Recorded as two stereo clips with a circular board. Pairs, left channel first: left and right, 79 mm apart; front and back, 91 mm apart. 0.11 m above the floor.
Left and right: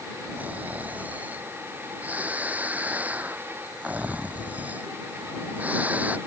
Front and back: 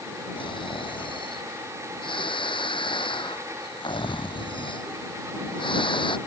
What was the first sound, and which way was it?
Snoring, 20° right.